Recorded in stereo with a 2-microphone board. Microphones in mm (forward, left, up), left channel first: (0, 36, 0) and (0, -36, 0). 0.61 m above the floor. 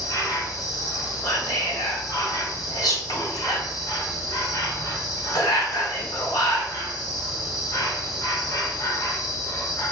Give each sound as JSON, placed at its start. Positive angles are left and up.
{"t": 0.0, "sound": "an insect", "side_deg": 55, "distance_m": 1.1}
{"t": 1.2, "sound": "whispering", "side_deg": 65, "distance_m": 1.6}